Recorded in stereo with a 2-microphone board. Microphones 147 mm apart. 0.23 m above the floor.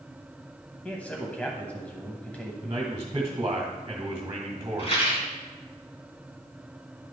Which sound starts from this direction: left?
A rattle, at 4.8 s.